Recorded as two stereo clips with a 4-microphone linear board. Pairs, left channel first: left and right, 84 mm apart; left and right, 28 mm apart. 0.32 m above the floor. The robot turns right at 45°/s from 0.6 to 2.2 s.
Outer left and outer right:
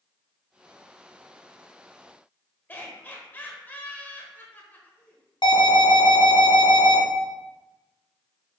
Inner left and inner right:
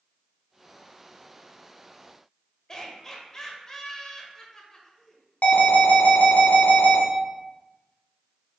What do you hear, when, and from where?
2.7 s laughter: 25° left (ahead or behind), 0.9 m
5.4 s an alarm: 70° left (ahead or behind), 1.4 m